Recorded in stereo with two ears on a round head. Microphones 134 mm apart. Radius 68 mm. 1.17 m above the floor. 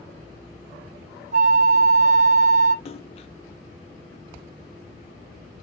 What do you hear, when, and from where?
1.3 s a flute: 50° right (ahead or behind), 0.6 m
2.9 s a splash: 40° left (ahead or behind), 0.6 m